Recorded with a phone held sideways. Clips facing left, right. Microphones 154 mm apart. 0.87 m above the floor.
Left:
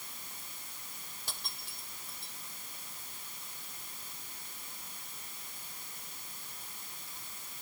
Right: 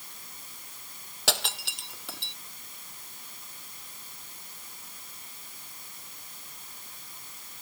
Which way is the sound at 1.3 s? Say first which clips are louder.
Right 18 dB; 80° right.